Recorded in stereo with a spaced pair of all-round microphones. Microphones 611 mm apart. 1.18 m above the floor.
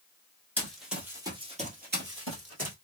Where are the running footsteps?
5° left (ahead or behind), 1.5 m; by 2.8 s 25° right (ahead or behind), 1.3 m.